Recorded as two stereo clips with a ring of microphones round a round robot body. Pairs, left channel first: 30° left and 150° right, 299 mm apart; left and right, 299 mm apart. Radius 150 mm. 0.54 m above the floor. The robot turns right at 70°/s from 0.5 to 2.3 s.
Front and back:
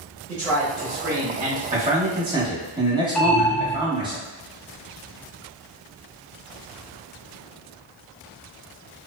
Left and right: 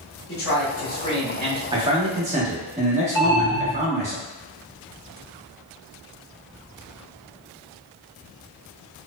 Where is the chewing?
I don't hear chewing.